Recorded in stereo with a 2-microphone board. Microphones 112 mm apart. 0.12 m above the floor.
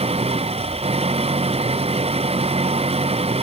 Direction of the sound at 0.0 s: 65° right (ahead or behind).